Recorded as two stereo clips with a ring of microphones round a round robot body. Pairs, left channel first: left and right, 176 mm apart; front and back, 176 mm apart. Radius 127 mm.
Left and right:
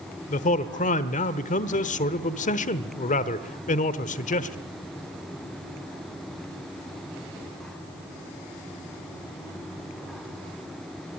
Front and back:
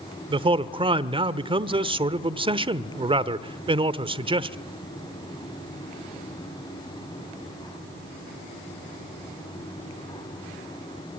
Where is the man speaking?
125° left, 1.1 m.